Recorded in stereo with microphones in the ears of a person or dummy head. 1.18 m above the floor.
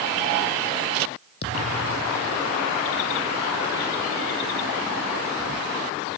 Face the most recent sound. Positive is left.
turn(degrees=60)  # may be behind; listen again after turning